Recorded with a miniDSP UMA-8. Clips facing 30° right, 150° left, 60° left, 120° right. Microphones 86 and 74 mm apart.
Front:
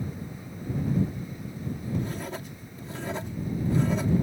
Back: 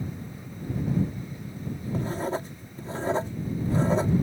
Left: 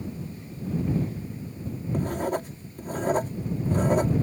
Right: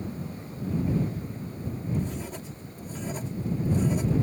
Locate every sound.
1.9 s writing: 95° left